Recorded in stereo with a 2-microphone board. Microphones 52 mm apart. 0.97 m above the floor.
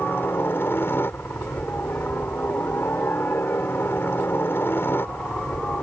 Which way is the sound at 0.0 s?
45° left (ahead or behind).